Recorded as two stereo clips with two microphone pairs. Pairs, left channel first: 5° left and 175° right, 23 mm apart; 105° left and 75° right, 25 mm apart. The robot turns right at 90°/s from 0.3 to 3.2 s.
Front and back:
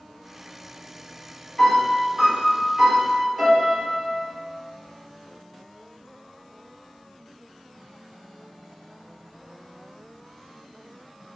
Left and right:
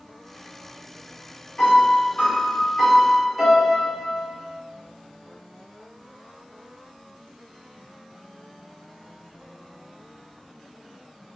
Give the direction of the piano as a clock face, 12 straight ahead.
10 o'clock.